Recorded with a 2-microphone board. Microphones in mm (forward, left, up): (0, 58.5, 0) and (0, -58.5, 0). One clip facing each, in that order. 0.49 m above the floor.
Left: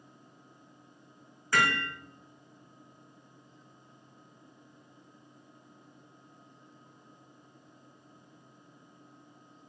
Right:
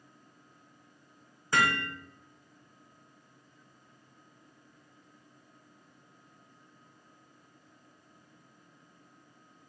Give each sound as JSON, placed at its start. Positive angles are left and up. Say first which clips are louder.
{"t": 1.5, "sound": "hammering", "louder": "even", "side_deg": -20, "distance_m": 0.8}